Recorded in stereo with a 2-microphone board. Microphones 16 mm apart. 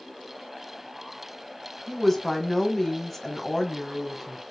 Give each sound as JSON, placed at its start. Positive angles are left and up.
{"t": 1.9, "sound": "a woman speaking", "side_deg": 20, "distance_m": 1.1}